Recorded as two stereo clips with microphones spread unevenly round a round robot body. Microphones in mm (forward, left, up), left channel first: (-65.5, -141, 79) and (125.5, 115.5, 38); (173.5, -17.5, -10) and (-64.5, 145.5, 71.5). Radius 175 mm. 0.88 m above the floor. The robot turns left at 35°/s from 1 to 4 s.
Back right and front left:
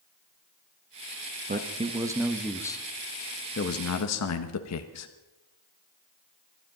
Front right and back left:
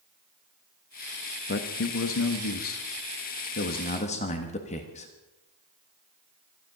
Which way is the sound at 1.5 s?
Straight ahead.